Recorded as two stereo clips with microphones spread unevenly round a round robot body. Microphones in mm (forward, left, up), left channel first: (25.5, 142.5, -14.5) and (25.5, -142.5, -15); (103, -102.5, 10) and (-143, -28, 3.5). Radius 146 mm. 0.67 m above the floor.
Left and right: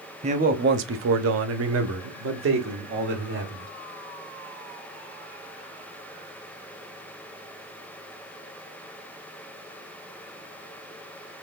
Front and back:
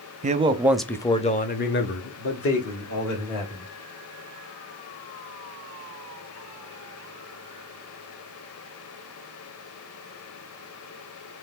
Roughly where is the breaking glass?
No breaking glass in this recording.